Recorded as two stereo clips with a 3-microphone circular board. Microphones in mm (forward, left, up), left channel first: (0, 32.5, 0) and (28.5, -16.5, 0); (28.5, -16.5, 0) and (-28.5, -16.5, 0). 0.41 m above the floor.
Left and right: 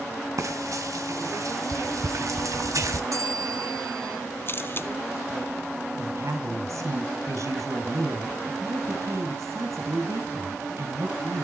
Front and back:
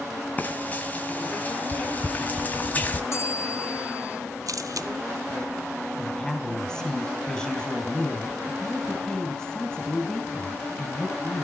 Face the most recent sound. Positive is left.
turn(degrees=-75)